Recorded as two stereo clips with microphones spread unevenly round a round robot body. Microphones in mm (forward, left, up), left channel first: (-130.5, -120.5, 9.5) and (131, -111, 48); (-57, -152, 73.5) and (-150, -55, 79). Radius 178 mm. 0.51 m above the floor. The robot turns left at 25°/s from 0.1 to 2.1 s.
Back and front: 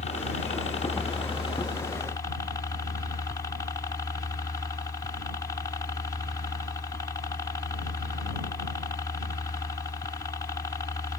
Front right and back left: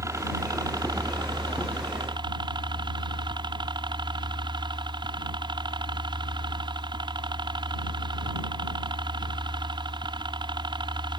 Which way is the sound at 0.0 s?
Straight behind.